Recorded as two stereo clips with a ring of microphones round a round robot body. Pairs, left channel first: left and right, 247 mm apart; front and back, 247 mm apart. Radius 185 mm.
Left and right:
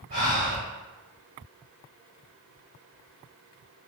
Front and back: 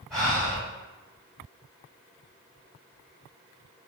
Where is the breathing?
90° right, 1.8 m.